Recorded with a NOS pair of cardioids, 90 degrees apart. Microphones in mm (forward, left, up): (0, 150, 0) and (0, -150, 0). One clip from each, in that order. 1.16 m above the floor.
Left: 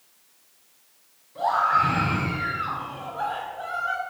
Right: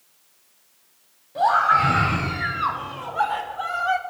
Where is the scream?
60° right, 3 m; by 4.0 s 65° right, 1.7 m.